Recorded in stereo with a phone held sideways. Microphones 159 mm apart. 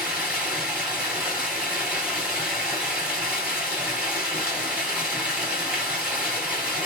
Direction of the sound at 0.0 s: 10° right (ahead or behind).